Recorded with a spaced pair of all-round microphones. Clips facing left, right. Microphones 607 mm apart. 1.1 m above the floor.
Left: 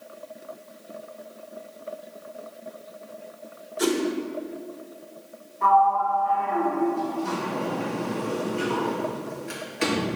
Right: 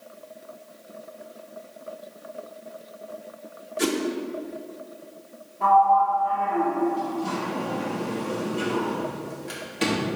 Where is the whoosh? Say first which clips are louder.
Left 1 dB; 50° right (ahead or behind), 0.9 m.